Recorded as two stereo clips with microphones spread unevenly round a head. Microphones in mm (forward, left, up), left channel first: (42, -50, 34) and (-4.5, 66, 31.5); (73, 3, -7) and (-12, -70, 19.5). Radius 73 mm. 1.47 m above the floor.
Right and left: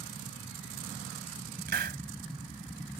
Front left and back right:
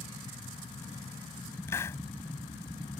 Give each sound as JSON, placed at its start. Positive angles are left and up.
{"t": 1.7, "sound": "a hiss", "azimuth_deg": 120}